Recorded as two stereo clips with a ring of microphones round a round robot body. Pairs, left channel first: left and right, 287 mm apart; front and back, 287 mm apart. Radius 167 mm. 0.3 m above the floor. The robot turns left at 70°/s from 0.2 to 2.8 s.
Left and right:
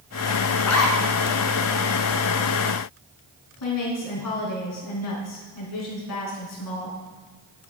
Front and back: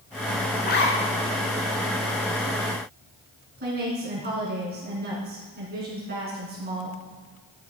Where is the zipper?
70° left, 1.6 m; by 1.0 s 40° left, 1.6 m.